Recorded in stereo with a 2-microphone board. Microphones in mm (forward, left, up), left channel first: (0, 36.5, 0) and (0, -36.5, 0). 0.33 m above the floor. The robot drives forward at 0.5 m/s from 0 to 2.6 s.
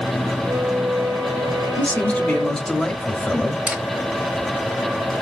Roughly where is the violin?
Right.